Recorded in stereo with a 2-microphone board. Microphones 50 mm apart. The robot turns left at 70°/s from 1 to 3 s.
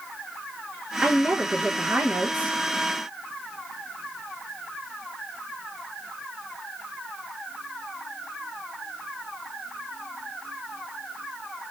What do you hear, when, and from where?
1.0 s a woman speaking: 25° right, 1.3 m; by 2.6 s 135° right, 1.3 m